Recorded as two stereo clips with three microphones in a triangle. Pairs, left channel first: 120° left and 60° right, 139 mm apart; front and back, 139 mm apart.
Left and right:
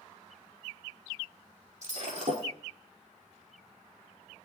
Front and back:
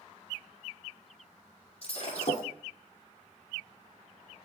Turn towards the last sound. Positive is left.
turn(degrees=-40)